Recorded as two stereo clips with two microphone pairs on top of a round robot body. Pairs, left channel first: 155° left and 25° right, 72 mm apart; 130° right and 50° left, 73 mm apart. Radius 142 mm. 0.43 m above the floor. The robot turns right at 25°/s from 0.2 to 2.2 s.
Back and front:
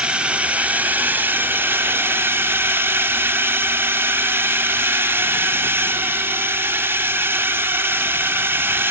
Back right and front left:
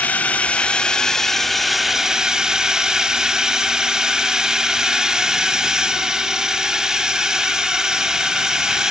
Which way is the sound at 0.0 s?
80° right.